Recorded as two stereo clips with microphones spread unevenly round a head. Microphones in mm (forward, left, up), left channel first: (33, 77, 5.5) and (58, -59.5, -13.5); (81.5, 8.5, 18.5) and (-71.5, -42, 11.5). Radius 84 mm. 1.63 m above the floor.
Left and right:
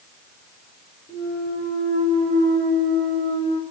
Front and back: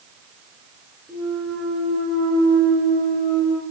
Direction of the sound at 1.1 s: 125° left.